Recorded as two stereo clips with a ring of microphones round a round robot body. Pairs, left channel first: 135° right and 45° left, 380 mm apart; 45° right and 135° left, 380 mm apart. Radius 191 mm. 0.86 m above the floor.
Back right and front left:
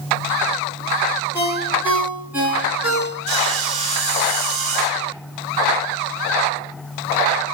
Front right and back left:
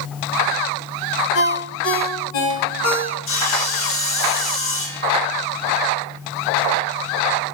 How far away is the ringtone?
About 4.5 m.